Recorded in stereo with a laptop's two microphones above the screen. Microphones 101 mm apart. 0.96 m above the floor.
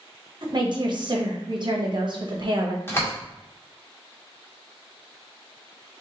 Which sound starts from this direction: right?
A woman speaking, at 0.4 s.